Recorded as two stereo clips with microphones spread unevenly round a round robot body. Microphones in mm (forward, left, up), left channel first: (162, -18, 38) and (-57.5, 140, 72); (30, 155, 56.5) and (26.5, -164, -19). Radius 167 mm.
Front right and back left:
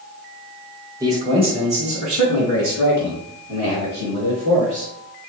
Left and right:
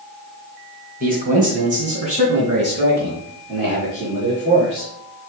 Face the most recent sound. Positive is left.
turn(degrees=-160)